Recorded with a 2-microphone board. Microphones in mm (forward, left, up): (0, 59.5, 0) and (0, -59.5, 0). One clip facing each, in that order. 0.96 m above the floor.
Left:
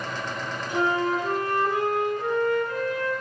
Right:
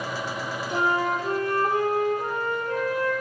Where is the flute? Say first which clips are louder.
Left 1 dB; 35° right (ahead or behind), 7 m.